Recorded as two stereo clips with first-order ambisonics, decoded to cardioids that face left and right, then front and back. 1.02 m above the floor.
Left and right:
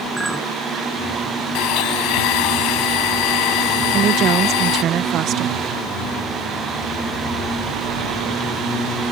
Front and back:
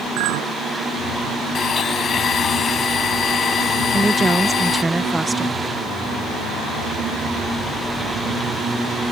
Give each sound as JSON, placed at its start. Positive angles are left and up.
{"t": 0.2, "sound": "a clink", "azimuth_deg": -175}
{"t": 1.6, "sound": "a blender", "azimuth_deg": 65}
{"t": 3.9, "sound": "a woman speaking", "azimuth_deg": -105}